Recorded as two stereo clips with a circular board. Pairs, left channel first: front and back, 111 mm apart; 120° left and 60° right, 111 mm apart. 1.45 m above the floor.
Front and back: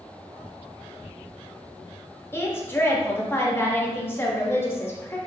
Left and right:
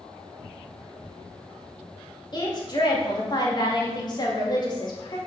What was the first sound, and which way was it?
A woman speaking, 70° left.